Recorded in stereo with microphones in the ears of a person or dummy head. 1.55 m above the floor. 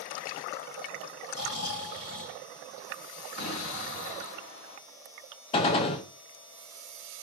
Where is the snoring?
55° left (ahead or behind), 2.5 m.